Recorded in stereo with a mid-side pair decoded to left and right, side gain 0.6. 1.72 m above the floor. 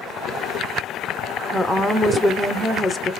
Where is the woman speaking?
Straight ahead, 0.7 m.